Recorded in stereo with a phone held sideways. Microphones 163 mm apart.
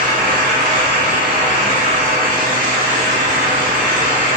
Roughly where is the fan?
Right.